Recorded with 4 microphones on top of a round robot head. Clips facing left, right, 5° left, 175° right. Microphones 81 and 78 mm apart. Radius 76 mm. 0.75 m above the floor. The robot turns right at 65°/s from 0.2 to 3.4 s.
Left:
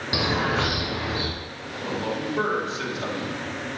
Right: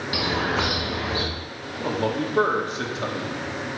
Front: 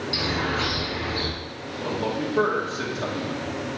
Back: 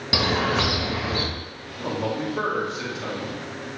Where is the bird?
165° left, 1.3 m; by 1.2 s 130° right, 1.3 m.